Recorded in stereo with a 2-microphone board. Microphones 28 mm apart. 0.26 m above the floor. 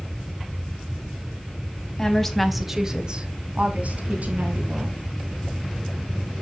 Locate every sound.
2.0 s a woman speaking: 20° left (ahead or behind), 1.8 m; by 5.0 s 70° right (ahead or behind), 3.5 m